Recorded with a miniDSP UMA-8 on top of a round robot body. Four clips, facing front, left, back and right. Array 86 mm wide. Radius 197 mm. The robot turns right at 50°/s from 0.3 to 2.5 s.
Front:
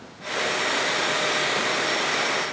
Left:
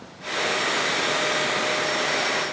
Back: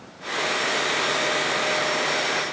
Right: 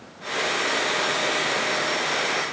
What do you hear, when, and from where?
Only background noise.